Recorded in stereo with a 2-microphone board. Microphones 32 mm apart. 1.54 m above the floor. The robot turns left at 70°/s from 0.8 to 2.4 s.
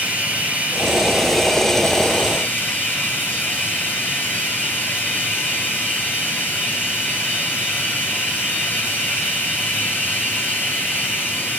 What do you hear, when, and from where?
0.0 s running water: 135° right, 8 m; by 11.6 s 110° left, 8 m